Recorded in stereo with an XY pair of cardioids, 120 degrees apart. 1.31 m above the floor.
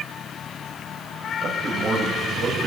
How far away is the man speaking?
About 6.5 m.